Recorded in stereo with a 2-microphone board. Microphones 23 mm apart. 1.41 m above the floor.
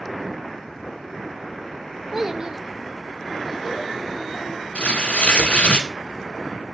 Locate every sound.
2.1 s a child speaking: 15° right (ahead or behind), 0.8 m; by 4.7 s 50° right (ahead or behind), 2.0 m
4.8 s tearing paper: 70° left (ahead or behind), 1.8 m